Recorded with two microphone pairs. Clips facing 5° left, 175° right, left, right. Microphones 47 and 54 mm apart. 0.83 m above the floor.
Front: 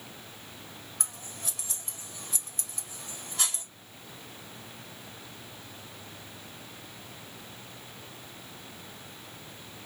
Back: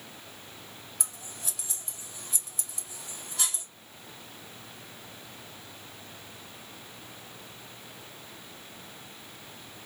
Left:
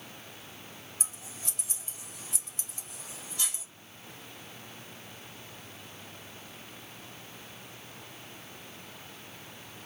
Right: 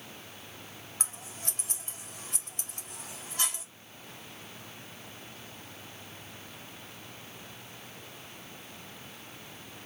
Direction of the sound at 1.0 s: 45° right.